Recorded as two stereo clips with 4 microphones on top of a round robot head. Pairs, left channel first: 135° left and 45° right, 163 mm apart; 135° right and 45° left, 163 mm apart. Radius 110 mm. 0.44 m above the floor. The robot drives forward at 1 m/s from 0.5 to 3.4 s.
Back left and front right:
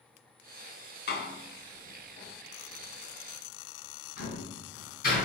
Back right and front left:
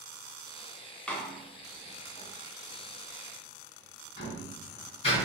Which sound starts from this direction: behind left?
A door slam, at 1.1 s.